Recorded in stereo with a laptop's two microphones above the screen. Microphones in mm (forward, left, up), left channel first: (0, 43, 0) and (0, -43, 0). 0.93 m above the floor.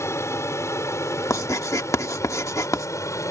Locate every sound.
0.0 s an aircraft: 35° left (ahead or behind); by 3.3 s 40° left (ahead or behind)
1.3 s writing: 40° left (ahead or behind)